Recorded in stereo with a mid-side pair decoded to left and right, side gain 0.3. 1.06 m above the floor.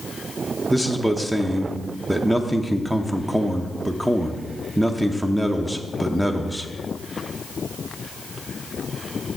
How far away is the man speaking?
About 0.7 m.